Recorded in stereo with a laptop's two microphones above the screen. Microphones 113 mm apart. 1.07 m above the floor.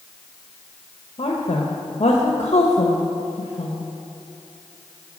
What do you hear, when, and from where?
1.2 s a woman speaking: 65° left (ahead or behind), 1.1 m